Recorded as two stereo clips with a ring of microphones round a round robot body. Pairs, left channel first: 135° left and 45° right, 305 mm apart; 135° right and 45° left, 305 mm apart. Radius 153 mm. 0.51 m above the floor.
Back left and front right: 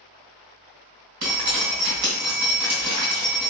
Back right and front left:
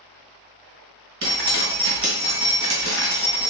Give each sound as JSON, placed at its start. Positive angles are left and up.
{"t": 1.2, "sound": "dripping", "azimuth_deg": -10, "distance_m": 2.5}